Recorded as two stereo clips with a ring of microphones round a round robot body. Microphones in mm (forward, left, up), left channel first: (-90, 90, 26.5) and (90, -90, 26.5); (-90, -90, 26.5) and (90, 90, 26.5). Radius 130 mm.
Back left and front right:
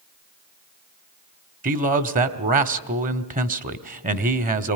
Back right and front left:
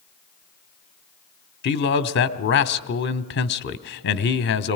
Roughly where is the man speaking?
Right.